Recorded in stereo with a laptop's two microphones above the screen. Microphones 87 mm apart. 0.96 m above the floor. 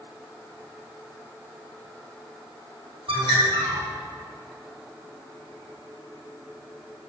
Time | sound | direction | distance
3.1 | a bird | 85° right | 4 m